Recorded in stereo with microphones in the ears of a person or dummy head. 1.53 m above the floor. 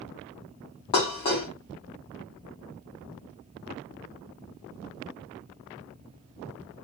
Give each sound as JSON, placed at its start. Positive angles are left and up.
{"t": 0.9, "sound": "dishes clattering", "side_deg": 20, "distance_m": 0.5}